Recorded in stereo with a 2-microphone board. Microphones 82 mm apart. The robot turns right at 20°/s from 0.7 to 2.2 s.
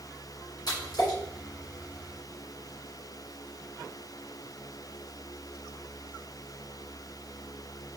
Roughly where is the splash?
Left.